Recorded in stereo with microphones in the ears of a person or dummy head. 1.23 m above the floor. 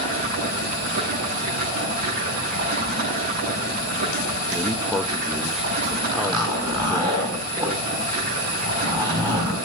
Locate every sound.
0.0 s running water: 55° right (ahead or behind), 9.5 m
4.5 s a man speaking: 5° right (ahead or behind), 0.7 m
6.1 s a zipper: 30° right (ahead or behind), 8 m